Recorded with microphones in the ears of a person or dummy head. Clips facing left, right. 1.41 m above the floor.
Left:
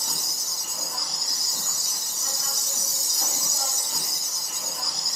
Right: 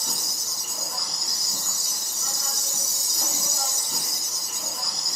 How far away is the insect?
About 0.8 m.